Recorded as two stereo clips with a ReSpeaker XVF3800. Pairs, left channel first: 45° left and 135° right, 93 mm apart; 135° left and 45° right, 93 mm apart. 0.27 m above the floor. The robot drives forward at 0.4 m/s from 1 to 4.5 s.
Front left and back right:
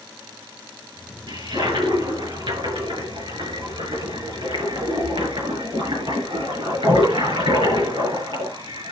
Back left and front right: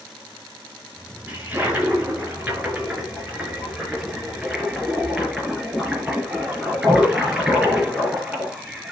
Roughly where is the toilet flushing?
Behind right.